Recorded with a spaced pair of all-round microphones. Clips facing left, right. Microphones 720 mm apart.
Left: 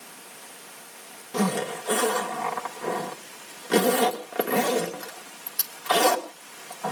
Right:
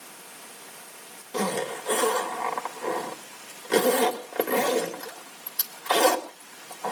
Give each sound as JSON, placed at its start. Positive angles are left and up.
{"t": 1.3, "sound": "a zipper", "side_deg": 40, "distance_m": 2.0}